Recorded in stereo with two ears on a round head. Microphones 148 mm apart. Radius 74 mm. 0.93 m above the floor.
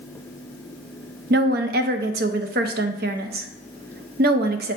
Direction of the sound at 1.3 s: 60° right (ahead or behind).